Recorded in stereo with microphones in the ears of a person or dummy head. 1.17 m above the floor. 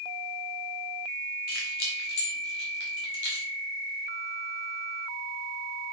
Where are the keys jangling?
50° left (ahead or behind), 1.4 m; by 3.5 s 70° left (ahead or behind), 2.5 m.